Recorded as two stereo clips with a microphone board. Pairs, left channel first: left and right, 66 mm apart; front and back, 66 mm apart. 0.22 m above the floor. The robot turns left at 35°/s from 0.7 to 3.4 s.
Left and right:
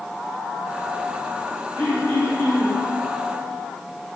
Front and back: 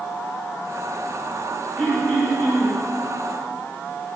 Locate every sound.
1.8 s throat clearing: 90° left, 1.8 m; by 2.8 s 55° left, 1.8 m